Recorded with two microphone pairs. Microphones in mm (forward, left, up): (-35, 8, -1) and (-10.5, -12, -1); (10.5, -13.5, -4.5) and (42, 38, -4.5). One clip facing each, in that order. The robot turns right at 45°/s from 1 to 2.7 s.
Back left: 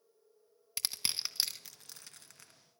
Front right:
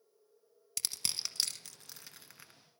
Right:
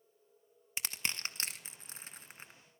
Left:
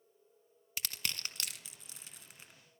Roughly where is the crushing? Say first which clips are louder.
Back left 1 dB, right 2 dB; behind.